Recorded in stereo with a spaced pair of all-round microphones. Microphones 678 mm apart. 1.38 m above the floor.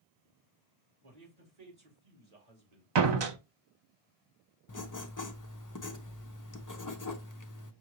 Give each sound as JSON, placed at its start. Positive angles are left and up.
{"t": 1.0, "sound": "a man speaking", "side_deg": -60, "distance_m": 2.0}
{"t": 3.0, "sound": "a door slam", "side_deg": -40, "distance_m": 0.6}
{"t": 4.7, "sound": "writing", "side_deg": 30, "distance_m": 0.5}